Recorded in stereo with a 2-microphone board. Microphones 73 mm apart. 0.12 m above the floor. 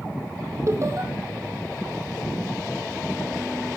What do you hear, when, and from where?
0.7 s laughter: 40° right (ahead or behind), 4 m